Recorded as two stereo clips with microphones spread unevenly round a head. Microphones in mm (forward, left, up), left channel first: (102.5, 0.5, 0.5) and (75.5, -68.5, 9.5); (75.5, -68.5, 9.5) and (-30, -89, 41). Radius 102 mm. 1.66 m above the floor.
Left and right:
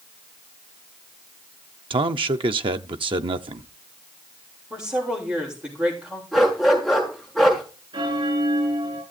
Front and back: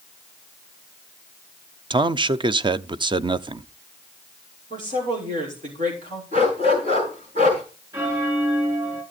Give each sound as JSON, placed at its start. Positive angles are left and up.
{"t": 1.9, "sound": "a man speaking", "azimuth_deg": -120, "distance_m": 0.8}
{"t": 4.7, "sound": "a woman speaking", "azimuth_deg": 175, "distance_m": 6.0}
{"t": 6.3, "sound": "a dog barking", "azimuth_deg": 160, "distance_m": 5.0}
{"t": 7.9, "sound": "a bell", "azimuth_deg": -110, "distance_m": 5.0}